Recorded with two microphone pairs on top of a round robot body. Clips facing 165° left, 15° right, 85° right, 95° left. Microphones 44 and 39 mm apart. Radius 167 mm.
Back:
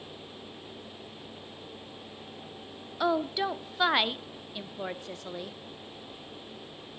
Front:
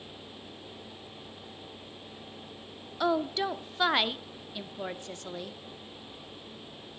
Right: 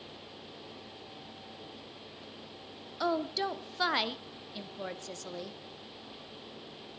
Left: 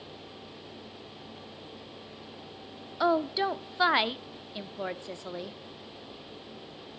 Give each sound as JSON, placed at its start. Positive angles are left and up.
{"t": 3.0, "sound": "a woman speaking", "azimuth_deg": 75, "distance_m": 0.9}